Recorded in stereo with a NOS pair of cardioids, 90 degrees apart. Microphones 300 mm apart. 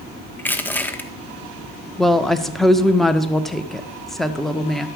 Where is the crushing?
5° left, 1.4 m.